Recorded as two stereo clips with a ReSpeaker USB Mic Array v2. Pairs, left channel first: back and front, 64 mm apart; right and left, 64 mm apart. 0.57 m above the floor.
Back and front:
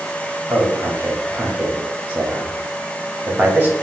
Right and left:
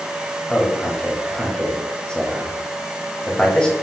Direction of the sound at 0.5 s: 30° right.